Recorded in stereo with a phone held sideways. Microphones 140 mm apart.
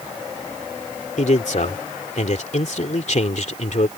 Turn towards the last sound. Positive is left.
turn(degrees=60)  # may be behind; listen again after turning